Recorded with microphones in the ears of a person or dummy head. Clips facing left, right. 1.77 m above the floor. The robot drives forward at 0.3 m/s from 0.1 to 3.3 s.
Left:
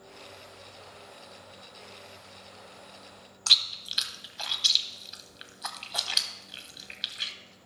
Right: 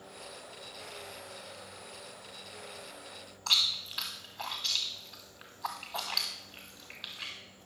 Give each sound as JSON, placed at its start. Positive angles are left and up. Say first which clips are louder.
{"t": 3.5, "sound": "chewing", "louder": "left 1 dB", "side_deg": 40, "distance_m": 1.2}